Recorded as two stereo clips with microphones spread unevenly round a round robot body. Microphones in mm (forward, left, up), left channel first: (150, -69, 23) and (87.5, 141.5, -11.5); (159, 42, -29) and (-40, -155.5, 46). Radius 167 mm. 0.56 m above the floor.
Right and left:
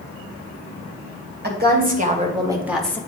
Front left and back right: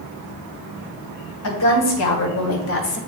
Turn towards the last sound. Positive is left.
turn(degrees=10)